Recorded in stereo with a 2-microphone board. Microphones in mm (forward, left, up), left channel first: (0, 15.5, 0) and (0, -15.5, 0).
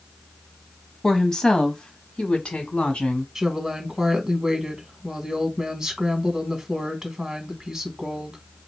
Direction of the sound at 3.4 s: 15° right (ahead or behind).